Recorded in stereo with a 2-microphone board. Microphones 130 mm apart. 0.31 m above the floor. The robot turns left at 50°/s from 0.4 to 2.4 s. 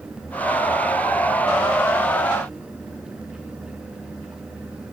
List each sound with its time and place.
Only background noise.